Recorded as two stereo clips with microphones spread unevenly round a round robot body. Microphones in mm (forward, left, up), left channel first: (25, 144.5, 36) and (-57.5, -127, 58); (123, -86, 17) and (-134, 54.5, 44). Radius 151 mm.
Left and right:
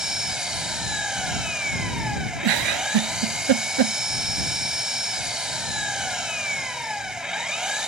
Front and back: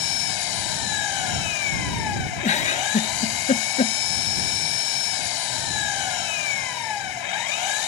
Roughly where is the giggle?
Right.